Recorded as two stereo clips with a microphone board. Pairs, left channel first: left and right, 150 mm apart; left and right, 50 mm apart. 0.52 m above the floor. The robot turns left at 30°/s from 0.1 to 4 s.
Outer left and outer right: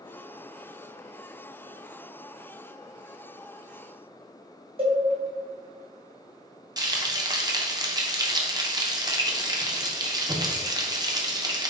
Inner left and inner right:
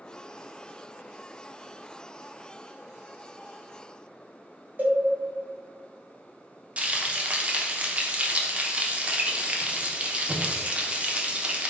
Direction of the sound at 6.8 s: 30° right (ahead or behind).